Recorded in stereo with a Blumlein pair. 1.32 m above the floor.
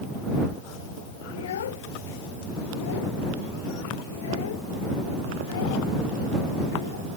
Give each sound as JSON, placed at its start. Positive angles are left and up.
{"t": 1.3, "sound": "a child speaking", "azimuth_deg": 60}